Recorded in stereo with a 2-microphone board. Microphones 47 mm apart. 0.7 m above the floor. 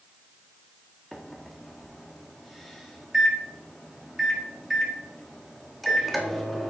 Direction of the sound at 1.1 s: 5° left (ahead or behind).